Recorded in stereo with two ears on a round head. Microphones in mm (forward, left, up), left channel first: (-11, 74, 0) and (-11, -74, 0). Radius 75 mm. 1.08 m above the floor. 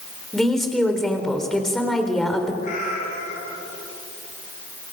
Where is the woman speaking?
Centre (ahead or behind), 3.5 m.